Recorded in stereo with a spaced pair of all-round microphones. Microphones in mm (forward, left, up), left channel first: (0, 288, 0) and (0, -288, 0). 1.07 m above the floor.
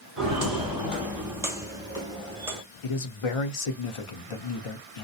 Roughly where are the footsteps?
Centre.